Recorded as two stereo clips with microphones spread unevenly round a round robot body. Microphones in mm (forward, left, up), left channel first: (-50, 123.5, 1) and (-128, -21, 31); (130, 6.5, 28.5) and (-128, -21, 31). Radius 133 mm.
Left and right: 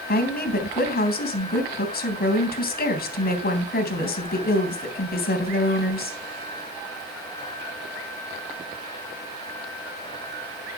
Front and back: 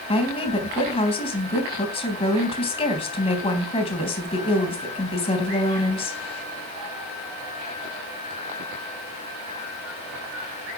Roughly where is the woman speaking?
Left.